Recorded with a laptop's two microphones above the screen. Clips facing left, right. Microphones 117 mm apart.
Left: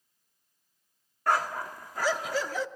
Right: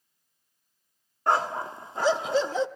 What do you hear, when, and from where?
1.3 s a dog barking: 25° right (ahead or behind), 0.6 m